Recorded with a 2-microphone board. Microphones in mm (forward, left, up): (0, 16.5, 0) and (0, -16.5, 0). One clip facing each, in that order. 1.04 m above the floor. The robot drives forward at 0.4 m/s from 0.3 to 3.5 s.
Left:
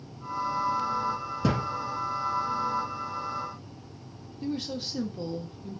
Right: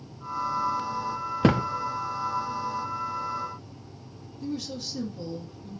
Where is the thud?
50° right (ahead or behind), 0.6 m; by 1.7 s 55° right (ahead or behind), 0.5 m.